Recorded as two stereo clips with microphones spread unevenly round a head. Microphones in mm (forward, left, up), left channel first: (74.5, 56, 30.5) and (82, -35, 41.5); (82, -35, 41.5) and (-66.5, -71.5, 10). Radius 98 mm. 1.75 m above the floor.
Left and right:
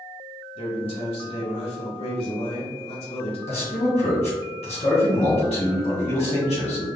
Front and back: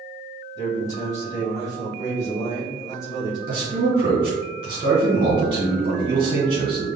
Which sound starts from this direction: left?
A man speaking, at 0.6 s.